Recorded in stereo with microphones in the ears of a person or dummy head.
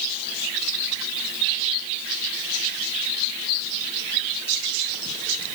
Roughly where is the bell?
I don't hear a bell.